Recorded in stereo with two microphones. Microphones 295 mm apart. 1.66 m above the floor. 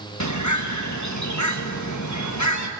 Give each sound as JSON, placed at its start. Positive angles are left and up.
{"t": 0.2, "sound": "a bird", "side_deg": 65, "distance_m": 1.5}